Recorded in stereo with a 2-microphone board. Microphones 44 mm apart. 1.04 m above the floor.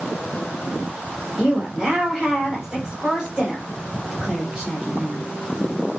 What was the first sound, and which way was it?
A woman speaking, 5° right (ahead or behind).